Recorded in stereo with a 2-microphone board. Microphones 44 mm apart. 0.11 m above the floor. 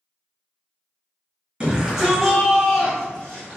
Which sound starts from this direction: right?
A shout, at 1.6 s.